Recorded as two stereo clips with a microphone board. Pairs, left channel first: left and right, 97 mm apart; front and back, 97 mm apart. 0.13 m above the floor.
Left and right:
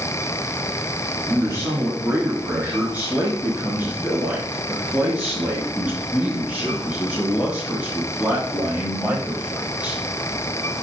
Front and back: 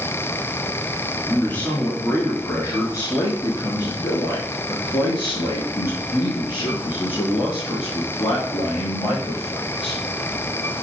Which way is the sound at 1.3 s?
60° right.